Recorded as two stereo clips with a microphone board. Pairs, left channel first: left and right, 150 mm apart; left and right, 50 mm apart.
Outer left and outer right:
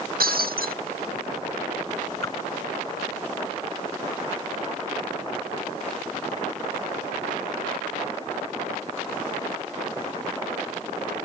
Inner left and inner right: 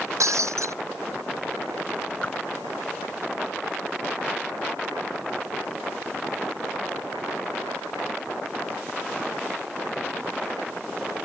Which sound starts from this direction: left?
A whoosh, at 2.2 s.